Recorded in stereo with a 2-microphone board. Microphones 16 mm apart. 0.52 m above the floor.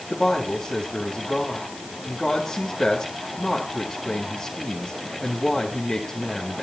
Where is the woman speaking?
15° left (ahead or behind), 3 m.